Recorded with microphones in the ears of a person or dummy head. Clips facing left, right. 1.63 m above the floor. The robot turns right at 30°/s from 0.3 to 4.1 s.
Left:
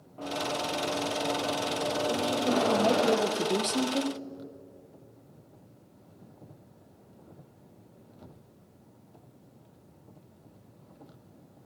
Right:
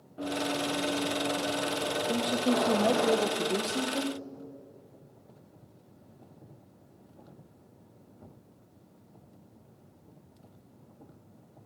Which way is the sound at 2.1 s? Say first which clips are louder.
Right 1 dB; 35° right.